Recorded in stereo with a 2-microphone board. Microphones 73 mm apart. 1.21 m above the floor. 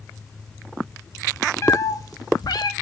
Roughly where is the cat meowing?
Left.